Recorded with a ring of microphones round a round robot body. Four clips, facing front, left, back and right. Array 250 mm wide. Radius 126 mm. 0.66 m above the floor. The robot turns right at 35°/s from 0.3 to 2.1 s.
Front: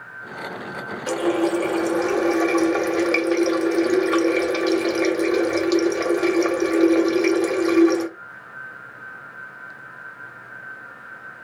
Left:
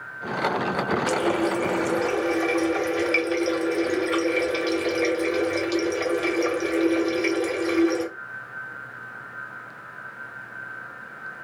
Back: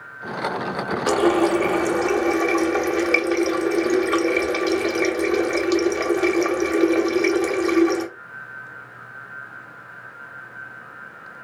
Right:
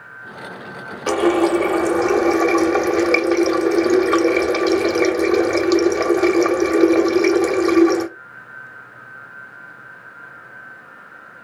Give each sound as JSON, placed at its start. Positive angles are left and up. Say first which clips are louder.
{"t": 1.1, "sound": "a running tap", "louder": "right 12 dB, back 3 dB", "azimuth_deg": -130, "distance_m": 0.7}